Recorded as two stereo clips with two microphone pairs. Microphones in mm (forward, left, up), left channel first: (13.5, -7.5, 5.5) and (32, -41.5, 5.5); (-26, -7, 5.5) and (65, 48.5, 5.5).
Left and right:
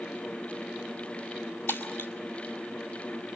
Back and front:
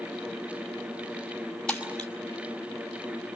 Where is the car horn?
I don't hear a car horn.